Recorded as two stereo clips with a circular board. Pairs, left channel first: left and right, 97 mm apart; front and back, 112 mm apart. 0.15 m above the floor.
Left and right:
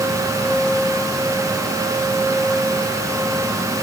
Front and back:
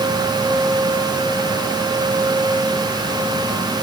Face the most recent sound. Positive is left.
No sound to turn to.